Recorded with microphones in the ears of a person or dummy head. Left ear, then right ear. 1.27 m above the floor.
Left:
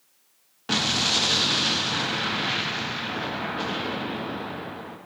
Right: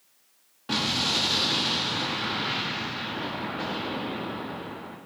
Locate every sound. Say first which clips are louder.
0.7 s an explosion: left 3 dB; 20° left (ahead or behind), 0.6 m